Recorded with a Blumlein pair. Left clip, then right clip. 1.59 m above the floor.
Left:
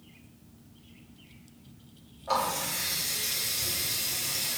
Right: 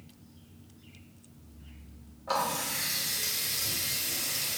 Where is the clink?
No clink in this recording.